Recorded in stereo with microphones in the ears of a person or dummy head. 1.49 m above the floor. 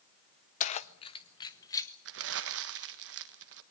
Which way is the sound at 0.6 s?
40° left (ahead or behind).